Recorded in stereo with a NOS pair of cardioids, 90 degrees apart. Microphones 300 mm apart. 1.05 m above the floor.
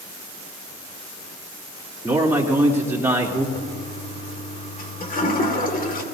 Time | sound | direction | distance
2.0 | a man speaking | 10° right | 3 m
3.5 | a toilet flushing | 30° left | 2 m